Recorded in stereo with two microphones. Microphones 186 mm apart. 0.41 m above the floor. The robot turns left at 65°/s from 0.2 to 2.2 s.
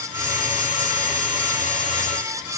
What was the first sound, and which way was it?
Only background noise.